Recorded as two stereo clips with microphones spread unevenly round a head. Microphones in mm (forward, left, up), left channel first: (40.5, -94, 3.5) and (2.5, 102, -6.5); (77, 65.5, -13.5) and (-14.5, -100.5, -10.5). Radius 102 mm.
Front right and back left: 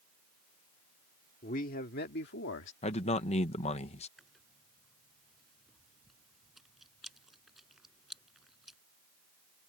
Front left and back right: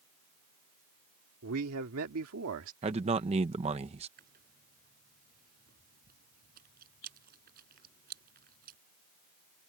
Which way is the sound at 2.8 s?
105° right.